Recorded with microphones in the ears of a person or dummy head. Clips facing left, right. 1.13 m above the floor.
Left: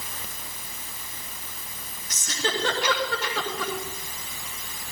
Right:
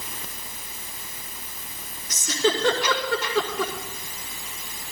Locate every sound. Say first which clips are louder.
2.1 s a giggle: right 6 dB; 75° right (ahead or behind), 5 m